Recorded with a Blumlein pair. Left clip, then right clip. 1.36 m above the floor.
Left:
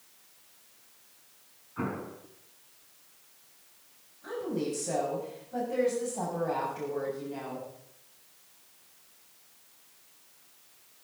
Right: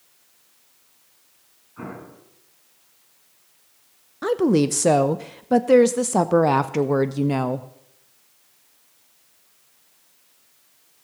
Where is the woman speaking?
45° right, 0.7 m.